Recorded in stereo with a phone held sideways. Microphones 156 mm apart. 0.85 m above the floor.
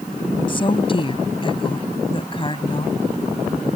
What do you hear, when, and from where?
0.5 s a woman speaking: 35° left (ahead or behind)